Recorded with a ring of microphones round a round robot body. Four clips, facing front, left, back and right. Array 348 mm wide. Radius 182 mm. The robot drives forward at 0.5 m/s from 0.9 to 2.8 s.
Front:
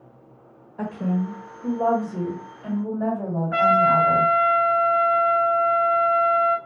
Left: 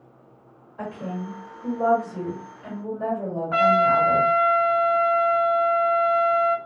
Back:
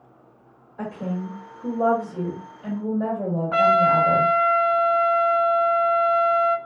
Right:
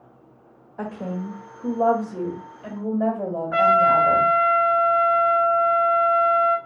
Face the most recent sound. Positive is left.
turn(degrees=150)